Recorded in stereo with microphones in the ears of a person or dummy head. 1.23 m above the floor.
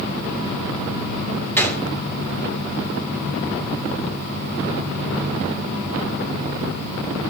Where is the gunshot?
15° left (ahead or behind), 1.9 m.